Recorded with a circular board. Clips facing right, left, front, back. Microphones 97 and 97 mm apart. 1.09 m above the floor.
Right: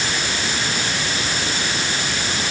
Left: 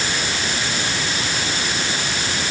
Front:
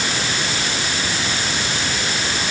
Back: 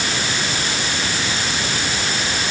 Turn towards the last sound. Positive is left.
No sound to turn to.